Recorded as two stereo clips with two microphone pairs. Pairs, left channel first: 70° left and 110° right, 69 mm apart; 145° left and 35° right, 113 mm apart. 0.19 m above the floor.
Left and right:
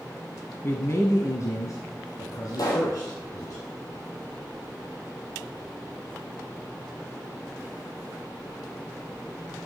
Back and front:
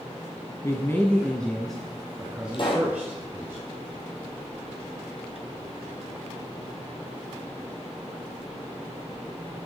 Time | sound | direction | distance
0.6 | a man speaking | 100° left | 1.3 m
2.5 | a pop | 100° left | 3 m